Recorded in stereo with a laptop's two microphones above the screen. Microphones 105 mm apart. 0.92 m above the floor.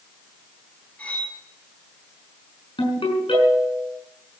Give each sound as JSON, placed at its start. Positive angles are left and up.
{"t": 1.0, "sound": "cutlery clinking", "side_deg": 15, "distance_m": 5.0}
{"t": 2.8, "sound": "a ringtone", "side_deg": 55, "distance_m": 6.0}